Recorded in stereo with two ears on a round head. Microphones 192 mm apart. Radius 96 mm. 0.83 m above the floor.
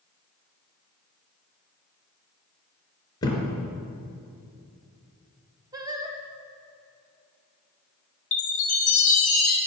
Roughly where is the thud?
Centre.